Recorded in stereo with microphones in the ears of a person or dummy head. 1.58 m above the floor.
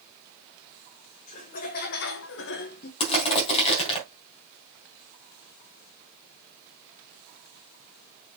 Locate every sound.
1.3 s laughter: 40° left (ahead or behind), 1.9 m; by 2.9 s 50° left (ahead or behind), 1.2 m
3.0 s crushing: 40° left (ahead or behind), 3 m